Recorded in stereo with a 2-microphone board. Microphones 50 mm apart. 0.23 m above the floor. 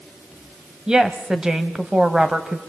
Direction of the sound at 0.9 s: 15° right (ahead or behind).